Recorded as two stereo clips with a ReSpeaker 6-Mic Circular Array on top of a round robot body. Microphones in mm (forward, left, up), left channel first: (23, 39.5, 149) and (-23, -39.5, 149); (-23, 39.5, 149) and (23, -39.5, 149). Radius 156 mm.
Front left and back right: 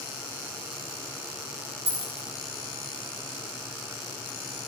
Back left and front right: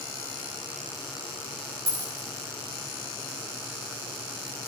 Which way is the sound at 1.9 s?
115° right.